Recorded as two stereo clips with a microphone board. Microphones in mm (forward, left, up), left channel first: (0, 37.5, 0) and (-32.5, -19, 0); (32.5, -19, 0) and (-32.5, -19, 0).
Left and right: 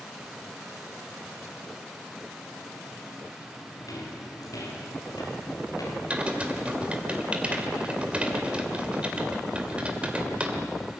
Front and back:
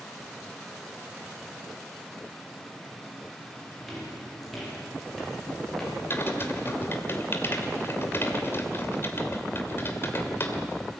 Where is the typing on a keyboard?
50° right, 2.5 m.